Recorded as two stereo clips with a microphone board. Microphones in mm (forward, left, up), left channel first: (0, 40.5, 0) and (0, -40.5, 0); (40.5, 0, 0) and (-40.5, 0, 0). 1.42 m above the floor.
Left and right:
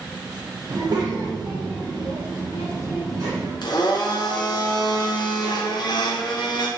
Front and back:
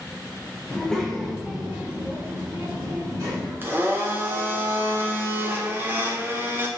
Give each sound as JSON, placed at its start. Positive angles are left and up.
{"t": 0.7, "sound": "a child speaking", "azimuth_deg": -75, "distance_m": 1.0}
{"t": 3.6, "sound": "a blender", "azimuth_deg": 115, "distance_m": 0.5}